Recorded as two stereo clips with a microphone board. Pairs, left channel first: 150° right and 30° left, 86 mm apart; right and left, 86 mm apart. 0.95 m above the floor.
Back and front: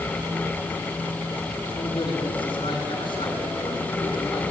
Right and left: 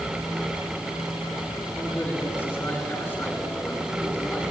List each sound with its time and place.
1.7 s a man speaking: 160° right, 8 m